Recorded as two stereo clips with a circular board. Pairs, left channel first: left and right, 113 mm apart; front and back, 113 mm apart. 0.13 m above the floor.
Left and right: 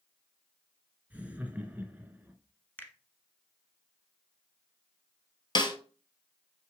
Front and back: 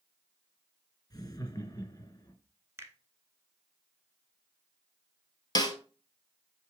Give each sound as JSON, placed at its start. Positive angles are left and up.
{"t": 1.1, "sound": "laughter", "azimuth_deg": -20, "distance_m": 1.3}
{"t": 2.8, "sound": "a finger snap", "azimuth_deg": 145, "distance_m": 1.1}
{"t": 5.5, "sound": "a snare drum", "azimuth_deg": 50, "distance_m": 1.2}